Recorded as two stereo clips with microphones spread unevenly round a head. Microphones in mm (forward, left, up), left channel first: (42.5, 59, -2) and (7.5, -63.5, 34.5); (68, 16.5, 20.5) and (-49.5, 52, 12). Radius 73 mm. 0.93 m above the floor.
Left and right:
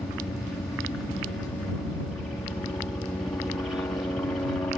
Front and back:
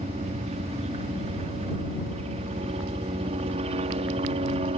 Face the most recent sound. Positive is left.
turn(degrees=145)